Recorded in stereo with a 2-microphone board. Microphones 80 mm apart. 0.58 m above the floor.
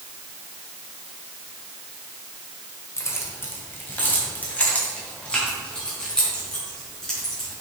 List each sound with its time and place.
3.0 s keys jangling: 40° left (ahead or behind), 1.8 m; by 7.5 s 5° left (ahead or behind), 6 m